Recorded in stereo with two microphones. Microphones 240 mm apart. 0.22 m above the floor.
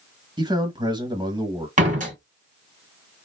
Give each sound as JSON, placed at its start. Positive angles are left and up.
{"t": 0.4, "sound": "a man speaking", "side_deg": -20, "distance_m": 1.1}
{"t": 1.8, "sound": "a door slam", "side_deg": -30, "distance_m": 1.4}